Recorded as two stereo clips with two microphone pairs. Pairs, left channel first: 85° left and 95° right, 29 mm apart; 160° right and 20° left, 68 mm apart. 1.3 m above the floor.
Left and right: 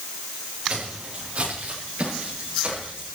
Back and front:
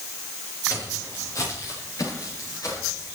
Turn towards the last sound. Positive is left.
turn(degrees=-135)